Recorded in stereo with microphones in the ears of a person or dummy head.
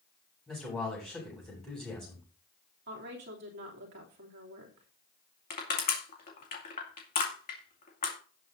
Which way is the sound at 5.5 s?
40° left (ahead or behind).